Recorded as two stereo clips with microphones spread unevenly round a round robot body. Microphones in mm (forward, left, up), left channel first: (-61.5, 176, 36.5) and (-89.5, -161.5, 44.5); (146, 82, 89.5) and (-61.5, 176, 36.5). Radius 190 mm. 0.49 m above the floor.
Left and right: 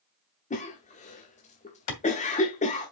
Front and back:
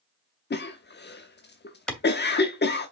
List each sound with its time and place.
0.5 s a cough: 25° left, 0.9 m
1.9 s a clap: 65° left, 2.5 m